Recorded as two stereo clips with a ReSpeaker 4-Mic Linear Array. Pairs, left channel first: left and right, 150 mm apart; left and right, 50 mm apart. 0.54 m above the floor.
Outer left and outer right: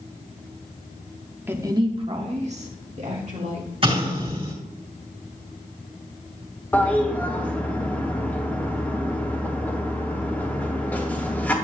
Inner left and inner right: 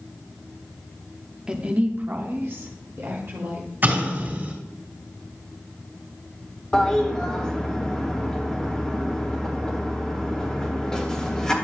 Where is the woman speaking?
15° right (ahead or behind), 0.9 m; by 3.7 s 50° right (ahead or behind), 2.5 m.